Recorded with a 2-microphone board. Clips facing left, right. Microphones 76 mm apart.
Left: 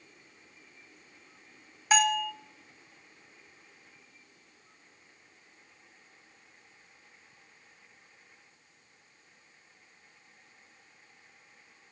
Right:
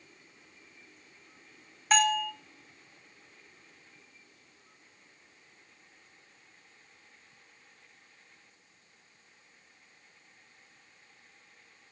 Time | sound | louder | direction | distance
1.9 | a bell | even | 5° left (ahead or behind) | 0.5 m